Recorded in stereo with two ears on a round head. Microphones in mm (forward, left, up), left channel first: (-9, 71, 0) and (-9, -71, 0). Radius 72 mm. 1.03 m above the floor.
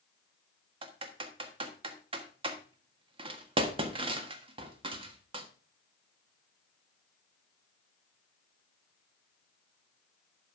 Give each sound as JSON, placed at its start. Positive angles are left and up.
{"t": 0.8, "sound": "typing on a keyboard", "side_deg": -35, "distance_m": 1.5}